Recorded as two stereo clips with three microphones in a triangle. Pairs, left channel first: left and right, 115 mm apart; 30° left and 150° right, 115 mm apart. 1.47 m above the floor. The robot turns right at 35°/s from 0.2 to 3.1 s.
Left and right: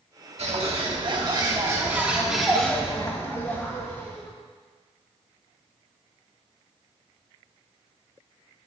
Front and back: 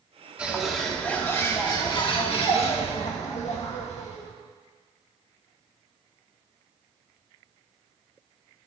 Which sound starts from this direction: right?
A bird, at 0.4 s.